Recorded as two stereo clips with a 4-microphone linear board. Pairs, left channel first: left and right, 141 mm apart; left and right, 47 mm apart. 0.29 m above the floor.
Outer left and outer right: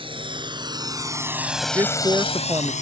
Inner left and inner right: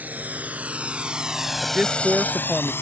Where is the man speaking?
25° right (ahead or behind).